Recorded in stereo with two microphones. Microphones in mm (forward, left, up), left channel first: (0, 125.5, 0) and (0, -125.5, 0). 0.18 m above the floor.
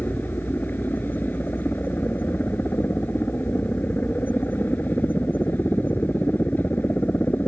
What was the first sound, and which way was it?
A helicopter, 10° left (ahead or behind).